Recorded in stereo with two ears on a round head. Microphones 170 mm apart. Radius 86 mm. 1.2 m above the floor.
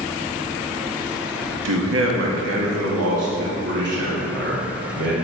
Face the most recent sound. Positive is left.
turn(degrees=-60)  # may be behind; listen again after turning